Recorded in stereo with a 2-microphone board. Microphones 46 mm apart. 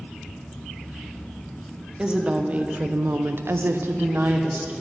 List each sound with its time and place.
2.0 s a woman speaking: 25° right (ahead or behind), 0.8 m; by 4.7 s 40° right (ahead or behind), 0.9 m